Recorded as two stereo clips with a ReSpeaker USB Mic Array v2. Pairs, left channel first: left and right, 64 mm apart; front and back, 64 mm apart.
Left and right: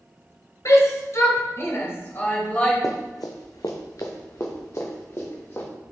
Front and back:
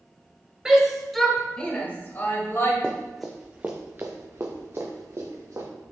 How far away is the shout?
About 1.8 m.